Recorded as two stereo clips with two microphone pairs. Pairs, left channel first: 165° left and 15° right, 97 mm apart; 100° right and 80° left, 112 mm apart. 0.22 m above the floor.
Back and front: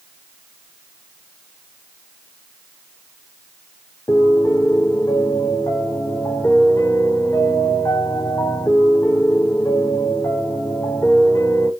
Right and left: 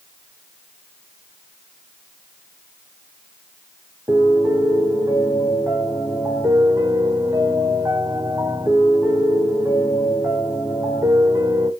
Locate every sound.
4.1 s a piano: 130° left, 0.7 m